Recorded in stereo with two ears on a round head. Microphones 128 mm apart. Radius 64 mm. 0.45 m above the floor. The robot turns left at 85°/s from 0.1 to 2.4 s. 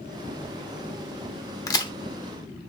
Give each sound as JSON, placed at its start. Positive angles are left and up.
{"t": 1.7, "sound": "a crack", "side_deg": 25, "distance_m": 0.8}